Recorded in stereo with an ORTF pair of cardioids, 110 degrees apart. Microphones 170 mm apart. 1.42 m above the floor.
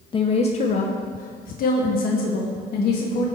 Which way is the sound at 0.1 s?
30° left.